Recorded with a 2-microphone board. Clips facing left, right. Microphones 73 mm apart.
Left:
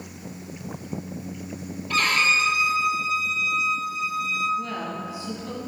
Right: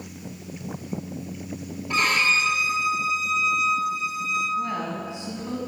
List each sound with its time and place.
1.9 s a violin: 20° right (ahead or behind), 2 m
4.6 s a woman speaking: 25° right (ahead or behind), 1.5 m